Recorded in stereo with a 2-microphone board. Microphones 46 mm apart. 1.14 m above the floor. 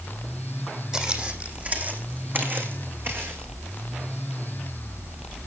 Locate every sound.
0.9 s footsteps: 20° right (ahead or behind), 2.5 m; by 3.5 s 55° right (ahead or behind), 4.5 m